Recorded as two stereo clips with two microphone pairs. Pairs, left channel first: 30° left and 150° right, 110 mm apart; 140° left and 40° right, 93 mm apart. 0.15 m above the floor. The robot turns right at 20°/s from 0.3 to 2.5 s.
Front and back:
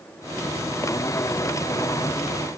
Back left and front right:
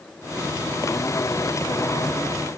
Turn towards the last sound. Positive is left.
No sound to turn to.